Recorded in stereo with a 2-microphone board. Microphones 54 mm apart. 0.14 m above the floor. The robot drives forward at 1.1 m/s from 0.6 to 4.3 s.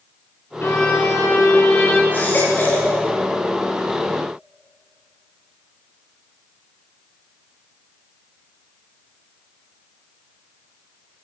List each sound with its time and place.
0.6 s a violin: 45° left (ahead or behind), 4 m; by 2.0 s 35° left (ahead or behind), 5.5 m
2.1 s a baby crying: 35° left (ahead or behind), 9.5 m; by 2.9 s 30° left (ahead or behind), 10 m